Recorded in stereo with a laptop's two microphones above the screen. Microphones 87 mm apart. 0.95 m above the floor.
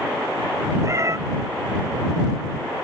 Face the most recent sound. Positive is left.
turn(degrees=-35)  # may be behind; listen again after turning